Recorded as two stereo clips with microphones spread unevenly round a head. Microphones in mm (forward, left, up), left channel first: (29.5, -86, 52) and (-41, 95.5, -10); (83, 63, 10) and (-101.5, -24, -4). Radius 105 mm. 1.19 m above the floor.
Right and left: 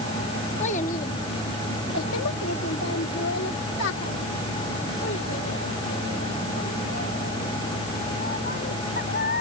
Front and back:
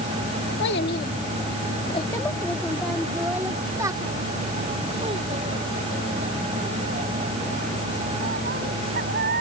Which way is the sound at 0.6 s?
15° right.